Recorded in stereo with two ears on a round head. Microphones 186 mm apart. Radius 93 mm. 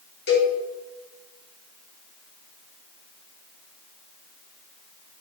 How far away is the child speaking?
No child speaking in this recording.